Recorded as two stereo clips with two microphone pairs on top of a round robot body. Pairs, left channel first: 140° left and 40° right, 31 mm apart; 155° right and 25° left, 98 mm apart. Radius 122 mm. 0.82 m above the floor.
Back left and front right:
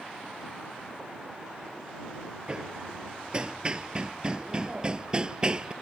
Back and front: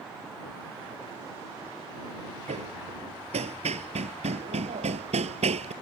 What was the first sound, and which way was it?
Hammering, 25° left.